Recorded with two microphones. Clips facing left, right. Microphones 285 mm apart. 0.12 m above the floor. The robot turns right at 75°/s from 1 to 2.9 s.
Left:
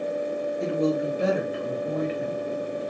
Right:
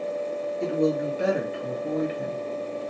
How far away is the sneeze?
I don't hear a sneeze.